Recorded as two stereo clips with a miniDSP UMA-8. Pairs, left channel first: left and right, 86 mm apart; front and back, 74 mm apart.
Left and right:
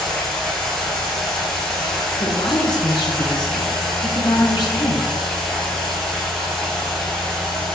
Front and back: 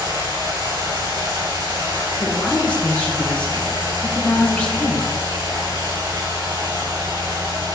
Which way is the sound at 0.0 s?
175° left.